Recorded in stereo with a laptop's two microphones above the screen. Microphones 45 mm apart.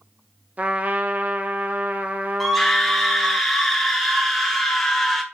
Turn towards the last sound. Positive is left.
turn(degrees=5)  # may be behind; listen again after turning